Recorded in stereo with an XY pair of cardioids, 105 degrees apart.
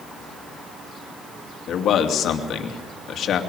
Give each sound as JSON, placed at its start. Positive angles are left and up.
{"t": 1.7, "sound": "a man speaking", "azimuth_deg": 60, "distance_m": 3.0}